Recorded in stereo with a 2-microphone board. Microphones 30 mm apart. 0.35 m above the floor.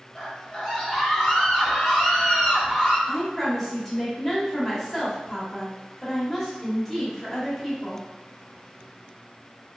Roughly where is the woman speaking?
Centre.